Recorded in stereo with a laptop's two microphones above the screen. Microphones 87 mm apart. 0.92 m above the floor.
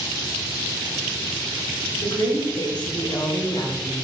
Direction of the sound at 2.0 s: 60° left (ahead or behind).